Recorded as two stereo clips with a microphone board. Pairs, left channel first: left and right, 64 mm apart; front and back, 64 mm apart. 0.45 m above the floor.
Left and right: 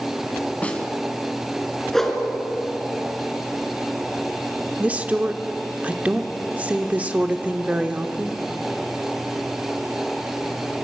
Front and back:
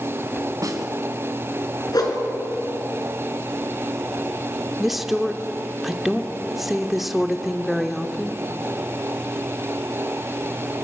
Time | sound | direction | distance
0.6 | a snare drum | 160° left | 2.5 m
1.9 | a whoosh | 5° left | 3.5 m
4.8 | a woman speaking | 95° right | 1.1 m